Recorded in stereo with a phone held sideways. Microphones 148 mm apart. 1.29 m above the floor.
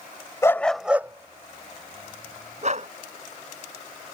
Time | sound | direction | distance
0.4 | a dog barking | 20° left (ahead or behind) | ?